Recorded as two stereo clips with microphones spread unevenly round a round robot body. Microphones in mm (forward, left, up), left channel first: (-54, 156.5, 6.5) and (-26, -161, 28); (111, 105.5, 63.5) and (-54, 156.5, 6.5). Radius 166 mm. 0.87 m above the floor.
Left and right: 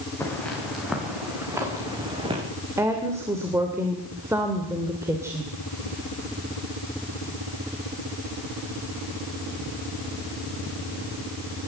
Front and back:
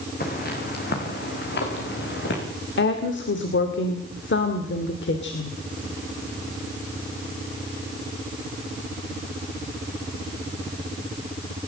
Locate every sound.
0.2 s footsteps: 10° left, 5.5 m; by 2.4 s 10° right, 6 m
2.8 s a woman speaking: straight ahead, 2.5 m